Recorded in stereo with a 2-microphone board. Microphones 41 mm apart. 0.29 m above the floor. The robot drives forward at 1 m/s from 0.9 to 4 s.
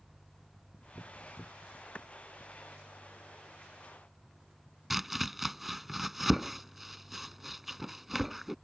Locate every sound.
1.9 s a clap: 30° left (ahead or behind)
4.9 s chopping: 5° right (ahead or behind)